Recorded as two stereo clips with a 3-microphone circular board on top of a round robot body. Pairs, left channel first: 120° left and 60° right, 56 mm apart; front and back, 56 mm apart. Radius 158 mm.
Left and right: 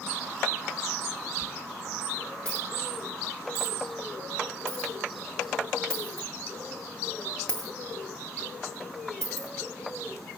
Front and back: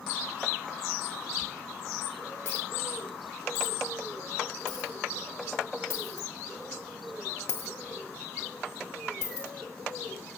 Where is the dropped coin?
60° left, 0.6 m.